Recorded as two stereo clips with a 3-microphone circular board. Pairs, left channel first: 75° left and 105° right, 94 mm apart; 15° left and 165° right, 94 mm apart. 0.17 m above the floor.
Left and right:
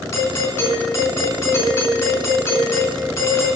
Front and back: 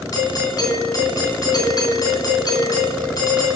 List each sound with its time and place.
0.1 s a doorbell: 35° left, 3 m